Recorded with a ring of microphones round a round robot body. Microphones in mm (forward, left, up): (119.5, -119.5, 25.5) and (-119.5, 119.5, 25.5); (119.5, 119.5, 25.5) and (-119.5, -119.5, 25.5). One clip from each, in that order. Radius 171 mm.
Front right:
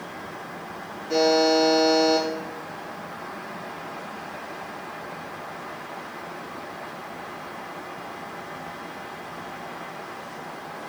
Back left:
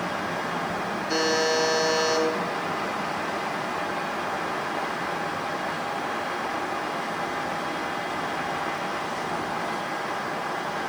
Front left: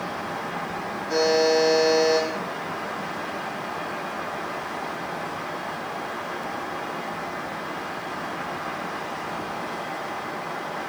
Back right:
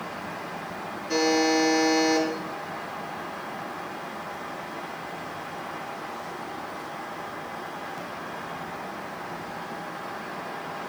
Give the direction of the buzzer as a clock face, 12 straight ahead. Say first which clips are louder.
Front right 5 dB, front left 3 dB; 7 o'clock.